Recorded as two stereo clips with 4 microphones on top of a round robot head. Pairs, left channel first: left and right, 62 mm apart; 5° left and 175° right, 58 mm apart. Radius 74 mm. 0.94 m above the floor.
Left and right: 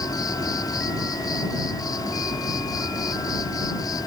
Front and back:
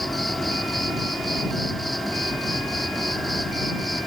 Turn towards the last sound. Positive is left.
turn(degrees=95)